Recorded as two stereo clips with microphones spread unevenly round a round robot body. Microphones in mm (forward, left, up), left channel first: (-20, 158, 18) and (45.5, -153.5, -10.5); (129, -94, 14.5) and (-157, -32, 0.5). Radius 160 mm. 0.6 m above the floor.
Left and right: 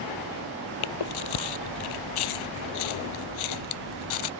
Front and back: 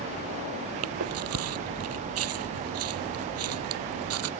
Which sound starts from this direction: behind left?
Chewing, at 0.8 s.